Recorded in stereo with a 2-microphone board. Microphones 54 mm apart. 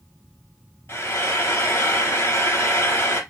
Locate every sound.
0.9 s frying: 45° left (ahead or behind), 3 m